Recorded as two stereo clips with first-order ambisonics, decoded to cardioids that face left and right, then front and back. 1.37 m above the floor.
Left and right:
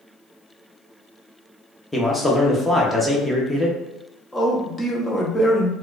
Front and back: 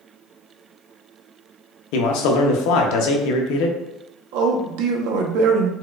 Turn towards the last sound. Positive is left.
turn(degrees=170)